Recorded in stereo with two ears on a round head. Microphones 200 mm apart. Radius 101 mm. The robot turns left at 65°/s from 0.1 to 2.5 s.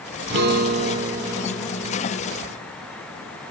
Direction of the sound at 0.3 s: 110° right.